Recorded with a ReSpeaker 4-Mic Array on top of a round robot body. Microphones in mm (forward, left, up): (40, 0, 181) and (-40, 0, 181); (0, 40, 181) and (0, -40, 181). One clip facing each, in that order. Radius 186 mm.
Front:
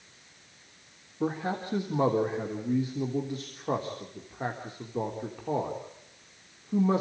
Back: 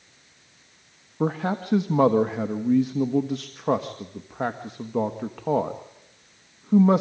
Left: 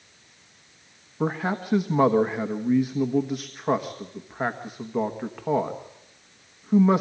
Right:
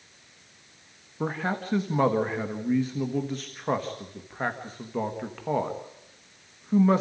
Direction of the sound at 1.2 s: 170° left.